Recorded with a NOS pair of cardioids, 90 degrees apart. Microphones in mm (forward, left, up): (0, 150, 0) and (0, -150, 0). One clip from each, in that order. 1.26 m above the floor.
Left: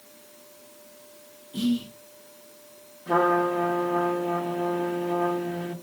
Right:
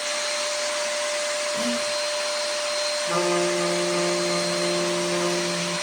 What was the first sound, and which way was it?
Whispering, 50° left.